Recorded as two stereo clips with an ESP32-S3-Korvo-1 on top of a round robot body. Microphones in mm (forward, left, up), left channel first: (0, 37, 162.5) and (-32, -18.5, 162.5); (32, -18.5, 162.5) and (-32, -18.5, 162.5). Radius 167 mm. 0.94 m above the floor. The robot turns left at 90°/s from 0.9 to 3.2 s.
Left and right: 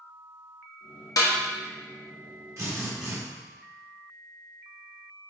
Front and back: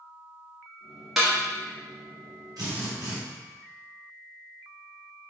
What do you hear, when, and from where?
1.2 s a snare drum: 90° left, 0.6 m; by 1.3 s 75° left, 0.6 m
2.6 s a drill: 160° right, 2 m; by 3.1 s 145° left, 2 m